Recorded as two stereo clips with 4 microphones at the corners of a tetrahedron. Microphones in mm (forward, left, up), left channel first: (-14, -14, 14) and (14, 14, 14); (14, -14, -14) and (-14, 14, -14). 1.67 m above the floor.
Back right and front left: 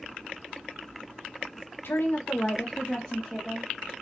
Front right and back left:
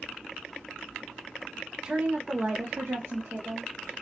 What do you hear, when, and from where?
1.8 s a woman speaking: 155° right, 0.6 m; by 3.9 s 120° left, 1.0 m